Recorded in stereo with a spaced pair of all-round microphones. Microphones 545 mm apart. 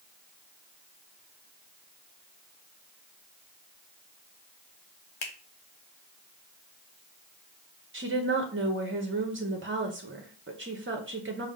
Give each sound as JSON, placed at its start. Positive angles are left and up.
{"t": 5.2, "sound": "a finger snap", "side_deg": 50, "distance_m": 0.7}
{"t": 7.9, "sound": "a woman speaking", "side_deg": -20, "distance_m": 0.6}